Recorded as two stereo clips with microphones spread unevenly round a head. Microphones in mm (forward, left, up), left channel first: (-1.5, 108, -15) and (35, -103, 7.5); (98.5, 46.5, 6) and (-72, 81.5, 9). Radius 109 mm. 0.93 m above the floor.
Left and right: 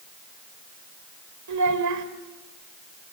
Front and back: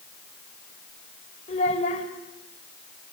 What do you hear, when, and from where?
1.5 s a child speaking: 75° right, 3 m